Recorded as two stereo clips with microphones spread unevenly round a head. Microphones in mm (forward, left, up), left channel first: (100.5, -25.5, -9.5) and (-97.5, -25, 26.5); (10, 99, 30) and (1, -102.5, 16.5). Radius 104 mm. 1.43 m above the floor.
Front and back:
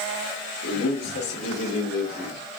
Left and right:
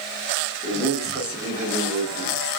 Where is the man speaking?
5° left, 1.7 m; by 2.4 s 25° right, 2 m.